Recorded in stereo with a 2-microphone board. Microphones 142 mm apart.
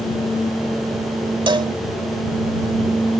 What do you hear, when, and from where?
1.5 s a cowbell: 35° right (ahead or behind)